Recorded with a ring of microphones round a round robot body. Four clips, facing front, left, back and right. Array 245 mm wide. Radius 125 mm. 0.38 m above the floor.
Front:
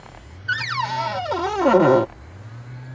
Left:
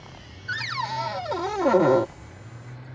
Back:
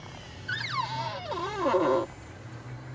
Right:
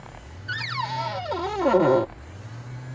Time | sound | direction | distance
0.5 | a cupboard door | 5° left | ?